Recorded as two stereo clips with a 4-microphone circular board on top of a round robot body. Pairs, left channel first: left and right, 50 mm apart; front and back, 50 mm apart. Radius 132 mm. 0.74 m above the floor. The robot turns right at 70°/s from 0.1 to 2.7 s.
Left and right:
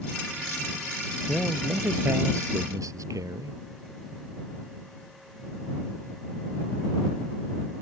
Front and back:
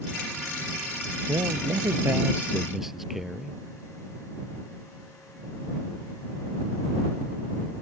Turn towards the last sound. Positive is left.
turn(degrees=-95)